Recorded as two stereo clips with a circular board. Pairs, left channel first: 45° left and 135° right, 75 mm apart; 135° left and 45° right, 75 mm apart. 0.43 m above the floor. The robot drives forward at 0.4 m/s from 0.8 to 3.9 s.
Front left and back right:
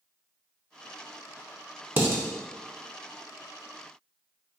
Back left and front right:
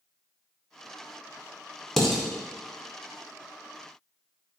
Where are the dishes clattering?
145° right, 0.6 m; by 2.2 s 155° right, 0.7 m.